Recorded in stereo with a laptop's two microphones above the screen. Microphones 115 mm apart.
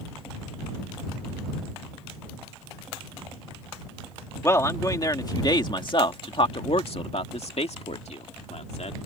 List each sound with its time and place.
4.4 s a man speaking: 25° left (ahead or behind); by 9.0 s 70° left (ahead or behind)